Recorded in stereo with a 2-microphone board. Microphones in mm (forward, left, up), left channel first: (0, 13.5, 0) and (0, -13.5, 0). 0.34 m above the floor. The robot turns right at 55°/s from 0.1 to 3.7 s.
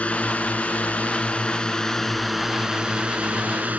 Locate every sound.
0.0 s a drone: 60° left; by 3.8 s 100° right